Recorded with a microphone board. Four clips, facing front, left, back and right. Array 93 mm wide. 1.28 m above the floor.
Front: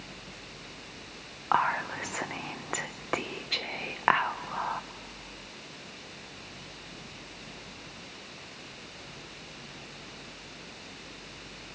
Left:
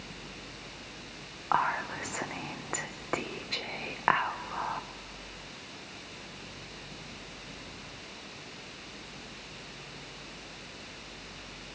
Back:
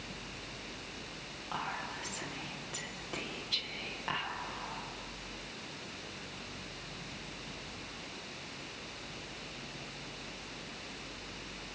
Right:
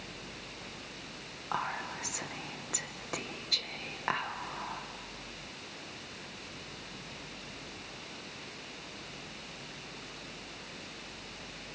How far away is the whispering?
About 0.8 m.